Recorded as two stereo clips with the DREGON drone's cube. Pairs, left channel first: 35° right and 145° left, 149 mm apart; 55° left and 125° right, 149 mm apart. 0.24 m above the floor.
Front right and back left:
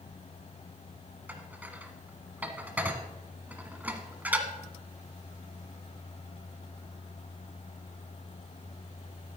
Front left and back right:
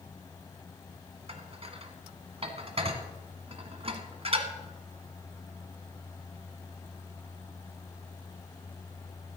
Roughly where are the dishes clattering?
Behind right.